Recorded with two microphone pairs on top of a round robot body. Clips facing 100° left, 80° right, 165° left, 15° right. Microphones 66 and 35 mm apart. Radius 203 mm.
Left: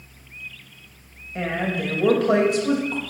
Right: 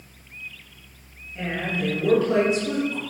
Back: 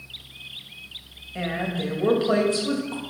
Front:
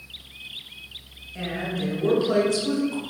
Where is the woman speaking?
110° left, 3.5 m.